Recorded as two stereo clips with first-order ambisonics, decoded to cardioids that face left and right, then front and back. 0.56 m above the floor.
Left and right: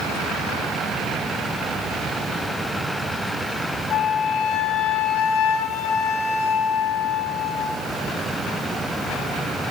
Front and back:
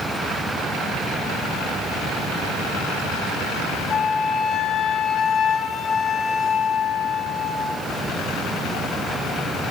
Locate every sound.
3.9 s a flute: 60° left, 1.1 m